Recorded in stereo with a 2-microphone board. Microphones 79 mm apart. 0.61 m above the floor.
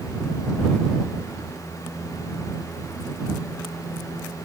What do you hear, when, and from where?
Only background noise.